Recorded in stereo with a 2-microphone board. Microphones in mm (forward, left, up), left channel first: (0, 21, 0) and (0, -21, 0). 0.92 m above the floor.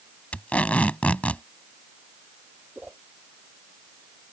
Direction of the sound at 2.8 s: 25° right (ahead or behind).